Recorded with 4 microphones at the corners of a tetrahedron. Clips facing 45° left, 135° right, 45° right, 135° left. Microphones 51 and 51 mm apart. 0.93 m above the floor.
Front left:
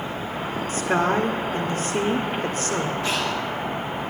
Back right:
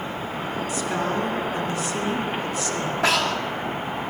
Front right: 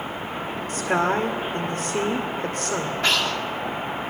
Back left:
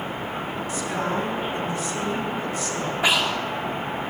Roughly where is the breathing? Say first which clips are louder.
Back right 3 dB, back left 2 dB; behind right.